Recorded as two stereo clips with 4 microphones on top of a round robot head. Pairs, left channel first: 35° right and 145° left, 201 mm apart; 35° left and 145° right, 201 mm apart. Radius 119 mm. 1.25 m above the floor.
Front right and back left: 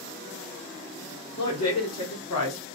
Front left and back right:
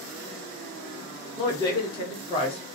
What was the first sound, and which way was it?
A woman speaking, 35° right.